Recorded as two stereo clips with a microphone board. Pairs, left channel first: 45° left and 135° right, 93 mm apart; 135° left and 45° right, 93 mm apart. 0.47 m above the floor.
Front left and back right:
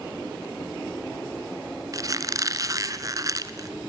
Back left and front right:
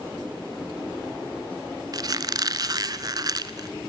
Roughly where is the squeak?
Right.